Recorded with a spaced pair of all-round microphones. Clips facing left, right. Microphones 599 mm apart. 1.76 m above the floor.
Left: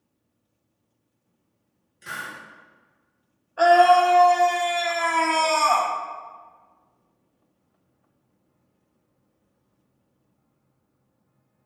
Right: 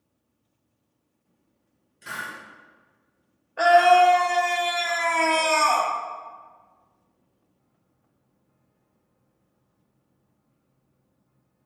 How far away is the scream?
About 0.7 m.